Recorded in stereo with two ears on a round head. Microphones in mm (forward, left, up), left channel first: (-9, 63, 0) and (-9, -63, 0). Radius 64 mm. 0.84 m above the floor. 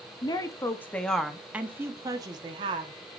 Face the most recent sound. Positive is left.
turn(degrees=-40)  # may be behind; listen again after turning